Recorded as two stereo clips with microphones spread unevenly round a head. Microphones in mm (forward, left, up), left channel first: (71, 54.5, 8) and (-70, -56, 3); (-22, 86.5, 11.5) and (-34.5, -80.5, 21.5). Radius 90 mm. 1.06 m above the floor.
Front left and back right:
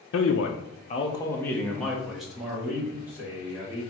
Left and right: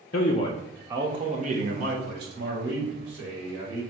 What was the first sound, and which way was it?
A man speaking, 45° left.